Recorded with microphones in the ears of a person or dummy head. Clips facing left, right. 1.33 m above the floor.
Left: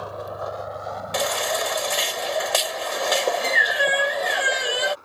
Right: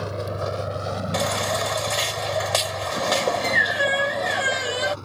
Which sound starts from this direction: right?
A vehicle, at 0.0 s.